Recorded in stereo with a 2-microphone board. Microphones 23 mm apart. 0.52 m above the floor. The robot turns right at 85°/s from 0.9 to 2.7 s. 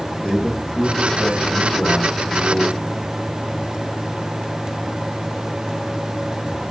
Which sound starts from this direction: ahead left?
A man speaking, at 0.2 s.